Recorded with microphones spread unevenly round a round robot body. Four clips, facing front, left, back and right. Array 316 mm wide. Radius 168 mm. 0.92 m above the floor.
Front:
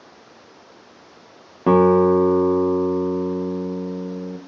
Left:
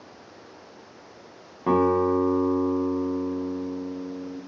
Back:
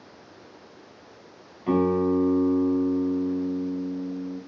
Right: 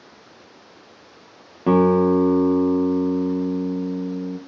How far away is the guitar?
About 1.6 m.